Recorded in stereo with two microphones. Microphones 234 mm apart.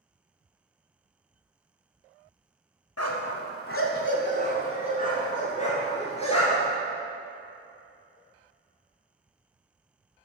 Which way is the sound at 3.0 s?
80° left.